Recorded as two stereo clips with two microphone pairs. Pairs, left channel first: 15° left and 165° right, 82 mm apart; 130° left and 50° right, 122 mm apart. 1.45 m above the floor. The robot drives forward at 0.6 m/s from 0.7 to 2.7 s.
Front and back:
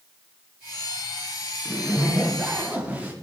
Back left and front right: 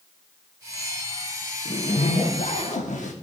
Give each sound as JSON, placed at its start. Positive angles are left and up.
{"t": 1.6, "sound": "a zipper", "azimuth_deg": 100, "distance_m": 1.1}